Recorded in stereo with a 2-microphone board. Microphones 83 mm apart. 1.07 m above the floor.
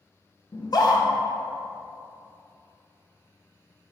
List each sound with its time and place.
0.5 s a scream: 55° left (ahead or behind), 0.7 m